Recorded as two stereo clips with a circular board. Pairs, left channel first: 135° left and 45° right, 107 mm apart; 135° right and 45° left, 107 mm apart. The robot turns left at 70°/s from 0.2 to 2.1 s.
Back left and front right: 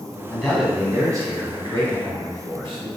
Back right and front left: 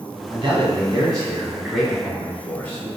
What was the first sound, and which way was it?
A man speaking, 60° left.